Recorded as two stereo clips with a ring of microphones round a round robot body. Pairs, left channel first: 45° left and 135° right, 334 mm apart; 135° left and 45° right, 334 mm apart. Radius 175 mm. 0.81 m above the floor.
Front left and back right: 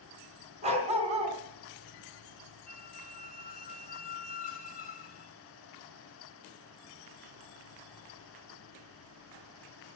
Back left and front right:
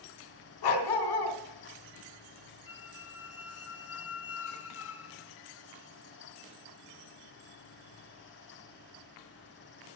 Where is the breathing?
No breathing in this recording.